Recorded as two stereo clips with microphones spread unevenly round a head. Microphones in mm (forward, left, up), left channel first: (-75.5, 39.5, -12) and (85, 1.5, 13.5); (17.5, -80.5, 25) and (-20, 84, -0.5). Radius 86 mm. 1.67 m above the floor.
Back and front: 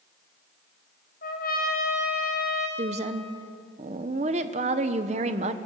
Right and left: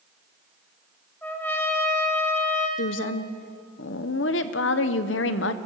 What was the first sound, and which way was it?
A trumpet, 150° right.